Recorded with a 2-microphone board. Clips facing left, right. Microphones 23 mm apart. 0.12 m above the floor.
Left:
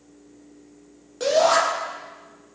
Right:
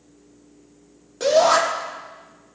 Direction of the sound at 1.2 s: Centre (ahead or behind).